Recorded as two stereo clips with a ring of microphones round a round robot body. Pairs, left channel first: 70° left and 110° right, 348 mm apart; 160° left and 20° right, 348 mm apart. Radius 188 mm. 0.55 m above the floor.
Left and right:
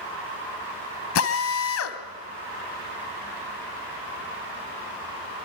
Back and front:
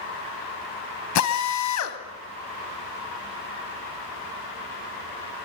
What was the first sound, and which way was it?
A drill, 115° left.